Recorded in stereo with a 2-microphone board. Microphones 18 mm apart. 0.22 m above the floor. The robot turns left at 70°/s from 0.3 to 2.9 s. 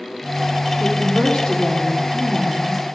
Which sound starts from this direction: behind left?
A woman speaking, at 0.8 s.